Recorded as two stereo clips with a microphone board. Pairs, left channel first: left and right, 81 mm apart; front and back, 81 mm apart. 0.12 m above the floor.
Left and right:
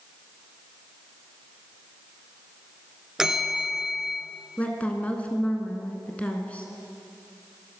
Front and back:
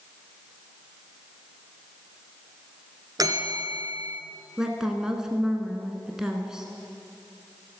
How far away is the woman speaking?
About 1.1 m.